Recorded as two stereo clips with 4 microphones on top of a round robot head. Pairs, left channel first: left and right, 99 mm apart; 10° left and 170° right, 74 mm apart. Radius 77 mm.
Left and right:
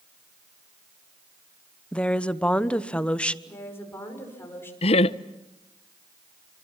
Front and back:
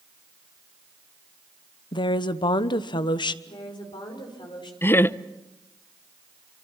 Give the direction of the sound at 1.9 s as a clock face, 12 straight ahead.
12 o'clock.